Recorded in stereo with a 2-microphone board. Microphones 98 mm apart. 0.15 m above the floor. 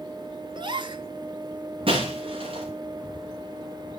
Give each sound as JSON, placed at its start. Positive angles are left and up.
{"t": 0.6, "sound": "a gasp", "side_deg": -50, "distance_m": 0.7}
{"t": 1.9, "sound": "breaking glass", "side_deg": -60, "distance_m": 8.5}